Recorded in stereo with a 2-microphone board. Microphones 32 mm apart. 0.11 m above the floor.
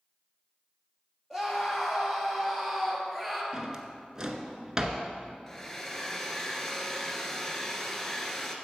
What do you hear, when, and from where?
1.3 s a scream: 10° left (ahead or behind), 3 m; by 3.4 s 5° left (ahead or behind), 2.0 m
3.5 s a drawer: 20° right (ahead or behind), 0.7 m
5.5 s a hair dryer: 15° left (ahead or behind), 0.9 m